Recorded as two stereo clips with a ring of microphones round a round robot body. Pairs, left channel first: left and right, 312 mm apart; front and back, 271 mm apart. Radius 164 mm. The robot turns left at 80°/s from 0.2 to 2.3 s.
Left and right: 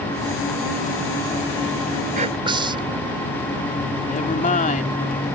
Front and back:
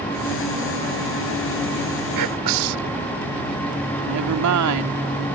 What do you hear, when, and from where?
2.1 s whispering: 155° right; by 3.0 s 165° right
4.0 s a woman speaking: 160° left